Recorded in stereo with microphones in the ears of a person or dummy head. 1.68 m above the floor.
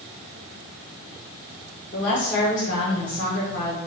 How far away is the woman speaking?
About 1.1 m.